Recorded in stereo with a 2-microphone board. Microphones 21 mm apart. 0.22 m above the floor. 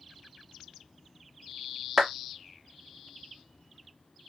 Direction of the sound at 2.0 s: 25° right (ahead or behind).